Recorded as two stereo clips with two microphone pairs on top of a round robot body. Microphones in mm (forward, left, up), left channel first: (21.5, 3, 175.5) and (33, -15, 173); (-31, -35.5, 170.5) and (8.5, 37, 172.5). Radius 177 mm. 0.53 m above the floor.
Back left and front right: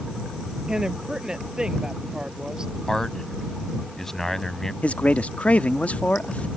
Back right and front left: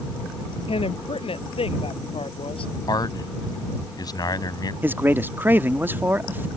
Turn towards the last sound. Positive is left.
turn(degrees=125)